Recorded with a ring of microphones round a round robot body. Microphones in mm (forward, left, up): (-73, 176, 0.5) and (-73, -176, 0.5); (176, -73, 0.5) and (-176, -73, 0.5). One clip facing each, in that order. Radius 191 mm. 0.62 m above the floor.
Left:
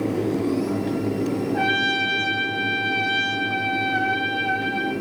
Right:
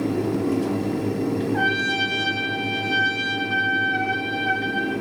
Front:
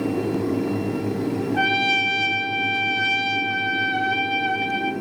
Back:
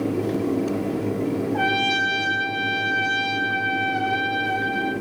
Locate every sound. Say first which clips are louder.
1.5 s a trumpet: even, even; 5° right, 2.5 m